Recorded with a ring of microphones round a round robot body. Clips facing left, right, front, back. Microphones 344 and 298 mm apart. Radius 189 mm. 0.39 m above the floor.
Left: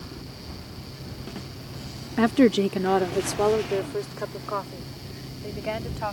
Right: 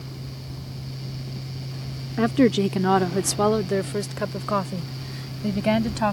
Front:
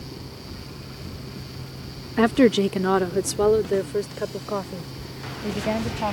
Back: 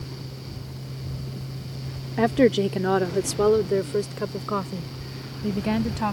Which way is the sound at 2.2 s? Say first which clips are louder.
Even, front 2 dB; 25° left.